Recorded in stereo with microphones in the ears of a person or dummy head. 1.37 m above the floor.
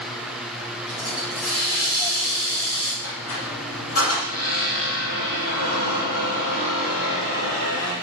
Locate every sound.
0.9 s a hiss: 25° left (ahead or behind), 9.5 m
3.0 s a squeak: 50° left (ahead or behind), 7.5 m